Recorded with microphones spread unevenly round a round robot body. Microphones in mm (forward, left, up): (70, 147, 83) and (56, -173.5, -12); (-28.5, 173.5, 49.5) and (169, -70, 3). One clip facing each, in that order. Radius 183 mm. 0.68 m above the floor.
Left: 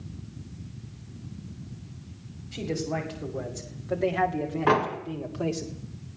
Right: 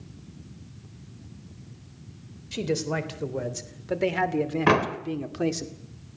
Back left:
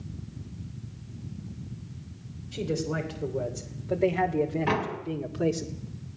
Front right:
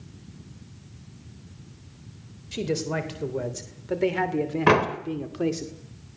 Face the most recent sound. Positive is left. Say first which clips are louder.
# left 1 dB, front right 8 dB
turn(degrees=-60)